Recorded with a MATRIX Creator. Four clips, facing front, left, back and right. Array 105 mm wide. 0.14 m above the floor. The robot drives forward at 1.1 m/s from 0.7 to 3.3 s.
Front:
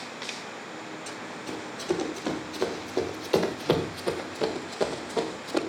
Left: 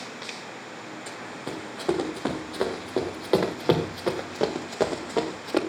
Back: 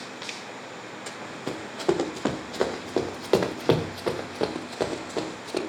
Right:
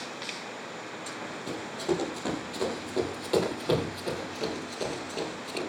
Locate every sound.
1.1 s running footsteps: 155° left, 4.5 m; by 5.6 s 95° left, 3 m